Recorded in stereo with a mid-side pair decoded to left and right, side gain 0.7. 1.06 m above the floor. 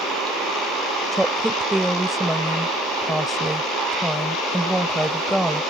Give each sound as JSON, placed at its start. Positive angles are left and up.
{"t": 1.1, "sound": "a woman speaking", "azimuth_deg": -5}